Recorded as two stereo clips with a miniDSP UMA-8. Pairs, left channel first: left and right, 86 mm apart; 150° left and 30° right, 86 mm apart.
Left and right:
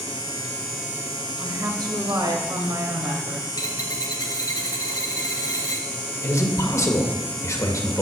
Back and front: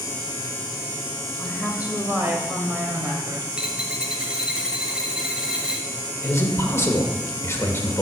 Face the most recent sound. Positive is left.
turn(degrees=110)